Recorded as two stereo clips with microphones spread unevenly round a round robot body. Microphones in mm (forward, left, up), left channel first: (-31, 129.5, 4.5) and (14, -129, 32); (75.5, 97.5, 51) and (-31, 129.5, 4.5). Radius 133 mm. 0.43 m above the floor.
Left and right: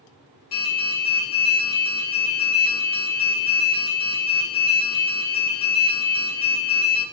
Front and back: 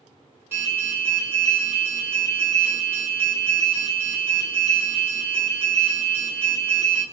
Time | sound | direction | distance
0.5 | an alarm | 130° left | 1.7 m